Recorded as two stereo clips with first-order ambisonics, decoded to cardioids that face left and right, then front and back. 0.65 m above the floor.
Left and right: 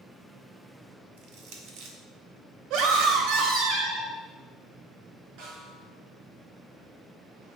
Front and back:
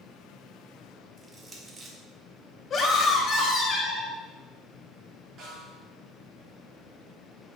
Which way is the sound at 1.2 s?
105° right.